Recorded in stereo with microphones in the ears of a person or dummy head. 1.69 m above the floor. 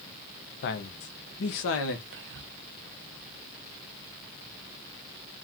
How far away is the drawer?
No drawer in this recording.